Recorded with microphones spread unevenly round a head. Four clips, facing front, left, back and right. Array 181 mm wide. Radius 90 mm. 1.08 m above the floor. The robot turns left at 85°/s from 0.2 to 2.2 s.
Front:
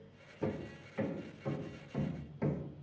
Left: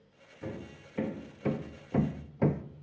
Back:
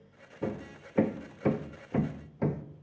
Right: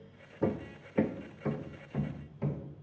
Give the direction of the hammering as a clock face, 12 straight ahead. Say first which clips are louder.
Right 9 dB, back 3 dB; 3 o'clock.